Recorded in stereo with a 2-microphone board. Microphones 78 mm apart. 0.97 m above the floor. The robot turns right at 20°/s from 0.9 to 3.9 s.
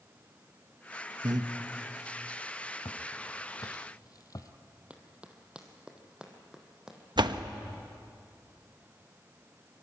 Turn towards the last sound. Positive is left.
turn(degrees=-70)  # may be behind; listen again after turning